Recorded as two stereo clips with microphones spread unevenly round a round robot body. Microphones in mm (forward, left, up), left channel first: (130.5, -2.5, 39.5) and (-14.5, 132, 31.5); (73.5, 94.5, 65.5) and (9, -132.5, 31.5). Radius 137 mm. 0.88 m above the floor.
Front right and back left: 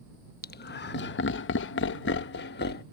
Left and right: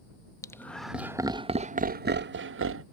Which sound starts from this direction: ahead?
Laughter, at 0.4 s.